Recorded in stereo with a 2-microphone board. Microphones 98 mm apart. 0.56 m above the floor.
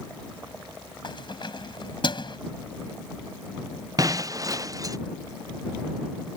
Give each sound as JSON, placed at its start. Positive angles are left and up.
{"t": 1.0, "sound": "keys jangling", "side_deg": 55}
{"t": 4.0, "sound": "breaking glass", "side_deg": -35}